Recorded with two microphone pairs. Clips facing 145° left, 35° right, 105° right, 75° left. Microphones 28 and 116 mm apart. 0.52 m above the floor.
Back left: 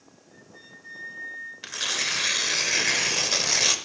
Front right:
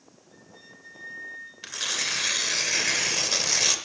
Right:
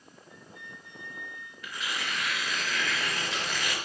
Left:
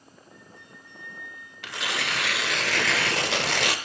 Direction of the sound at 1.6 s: 65° left.